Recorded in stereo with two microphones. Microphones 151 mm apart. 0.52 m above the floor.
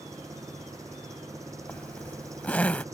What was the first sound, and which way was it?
An engine running, 20° right (ahead or behind).